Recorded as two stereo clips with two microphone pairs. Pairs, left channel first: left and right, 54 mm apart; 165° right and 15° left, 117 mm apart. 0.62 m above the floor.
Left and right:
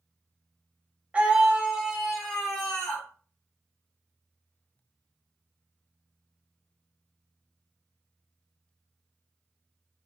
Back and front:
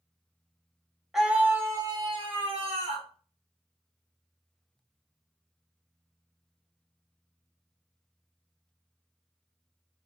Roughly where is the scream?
Right.